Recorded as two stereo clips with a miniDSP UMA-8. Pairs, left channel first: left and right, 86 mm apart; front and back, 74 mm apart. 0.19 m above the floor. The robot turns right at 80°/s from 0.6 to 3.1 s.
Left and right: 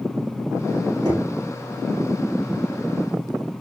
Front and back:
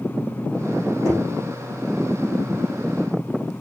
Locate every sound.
1.1 s knocking: 45° right, 6 m; by 1.3 s 30° right, 6 m